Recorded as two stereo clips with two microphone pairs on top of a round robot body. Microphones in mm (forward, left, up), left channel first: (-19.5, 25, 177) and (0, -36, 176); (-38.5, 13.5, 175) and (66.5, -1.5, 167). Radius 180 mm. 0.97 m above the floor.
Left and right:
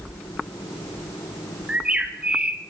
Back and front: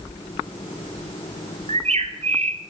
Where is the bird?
Straight ahead, 2 m.